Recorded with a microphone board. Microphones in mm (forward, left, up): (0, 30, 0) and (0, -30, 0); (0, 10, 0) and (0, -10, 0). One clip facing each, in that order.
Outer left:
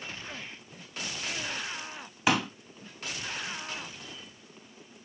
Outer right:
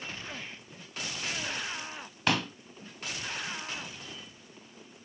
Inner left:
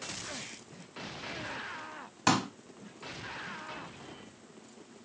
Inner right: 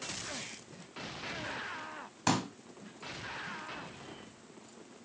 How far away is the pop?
About 2 m.